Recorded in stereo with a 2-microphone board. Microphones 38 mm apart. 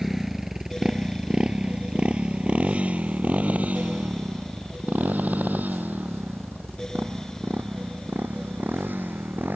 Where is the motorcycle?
10° right (ahead or behind); by 9.6 s 60° right (ahead or behind).